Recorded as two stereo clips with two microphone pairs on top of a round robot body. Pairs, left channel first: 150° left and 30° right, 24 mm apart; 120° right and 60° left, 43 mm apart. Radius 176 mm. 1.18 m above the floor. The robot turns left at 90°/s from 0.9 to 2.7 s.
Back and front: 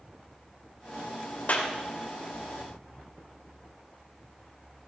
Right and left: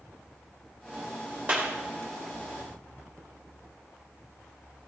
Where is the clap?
115° left, 2.5 m; by 1.7 s 95° left, 2.5 m.